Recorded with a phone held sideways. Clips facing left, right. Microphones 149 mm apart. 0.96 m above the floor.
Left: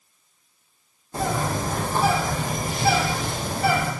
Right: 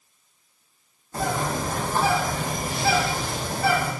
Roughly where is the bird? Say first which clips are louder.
Left 1 dB; left.